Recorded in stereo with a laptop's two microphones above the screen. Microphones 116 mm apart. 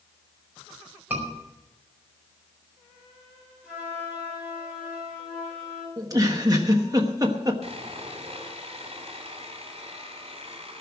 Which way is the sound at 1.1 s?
15° right (ahead or behind).